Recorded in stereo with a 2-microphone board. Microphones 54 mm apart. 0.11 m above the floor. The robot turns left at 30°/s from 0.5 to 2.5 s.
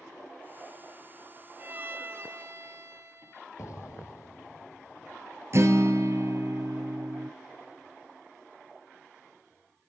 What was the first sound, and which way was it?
A violin, 35° right (ahead or behind).